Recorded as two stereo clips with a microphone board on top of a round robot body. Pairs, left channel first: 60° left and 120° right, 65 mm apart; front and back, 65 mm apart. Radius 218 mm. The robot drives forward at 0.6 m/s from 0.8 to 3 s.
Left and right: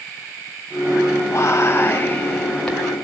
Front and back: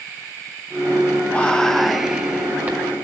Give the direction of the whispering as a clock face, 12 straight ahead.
10 o'clock.